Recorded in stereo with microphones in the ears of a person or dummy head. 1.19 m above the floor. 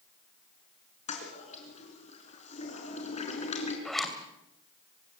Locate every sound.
1.1 s a toilet flushing: 35° left (ahead or behind), 4 m
3.9 s a zipper: centre (ahead or behind), 3 m